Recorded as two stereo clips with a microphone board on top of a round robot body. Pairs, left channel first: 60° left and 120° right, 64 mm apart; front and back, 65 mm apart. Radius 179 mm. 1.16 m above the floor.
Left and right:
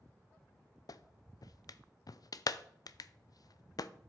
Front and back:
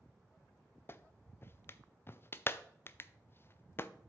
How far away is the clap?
About 0.5 m.